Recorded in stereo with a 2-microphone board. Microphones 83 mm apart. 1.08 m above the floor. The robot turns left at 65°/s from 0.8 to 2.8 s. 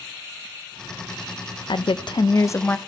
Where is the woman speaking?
90° left, 0.5 m; by 2.8 s 20° left, 0.5 m.